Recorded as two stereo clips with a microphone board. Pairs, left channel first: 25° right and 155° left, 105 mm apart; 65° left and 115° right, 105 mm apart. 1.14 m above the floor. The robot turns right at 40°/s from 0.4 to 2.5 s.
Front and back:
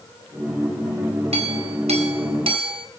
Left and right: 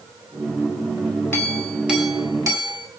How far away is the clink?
About 5.5 m.